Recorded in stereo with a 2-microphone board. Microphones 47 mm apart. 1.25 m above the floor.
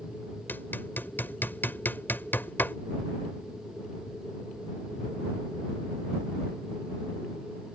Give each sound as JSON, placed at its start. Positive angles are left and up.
{"t": 0.5, "sound": "hammering", "side_deg": 50}